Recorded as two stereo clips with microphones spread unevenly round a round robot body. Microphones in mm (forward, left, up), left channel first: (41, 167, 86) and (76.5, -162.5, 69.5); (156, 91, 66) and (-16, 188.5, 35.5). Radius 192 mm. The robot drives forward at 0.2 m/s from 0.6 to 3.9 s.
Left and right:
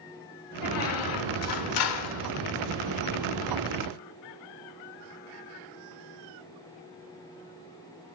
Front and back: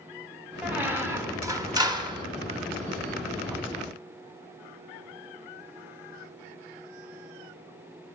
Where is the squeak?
70° left, 1.2 m; by 2.3 s 85° left, 1.2 m.